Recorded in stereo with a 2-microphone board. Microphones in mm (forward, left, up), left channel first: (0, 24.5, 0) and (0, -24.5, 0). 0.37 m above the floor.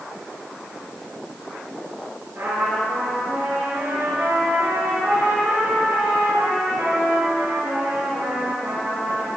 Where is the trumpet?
55° right (ahead or behind), 4 m.